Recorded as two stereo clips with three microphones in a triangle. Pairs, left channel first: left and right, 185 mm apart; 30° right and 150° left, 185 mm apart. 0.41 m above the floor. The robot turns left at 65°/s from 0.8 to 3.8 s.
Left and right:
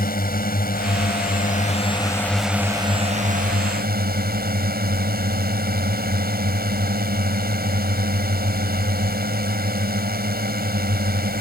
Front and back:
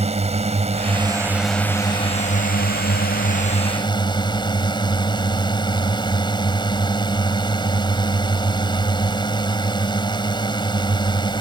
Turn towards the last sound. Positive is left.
turn(degrees=-90)